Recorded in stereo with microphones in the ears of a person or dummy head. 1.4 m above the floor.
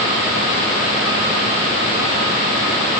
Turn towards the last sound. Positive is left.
No sound to turn to.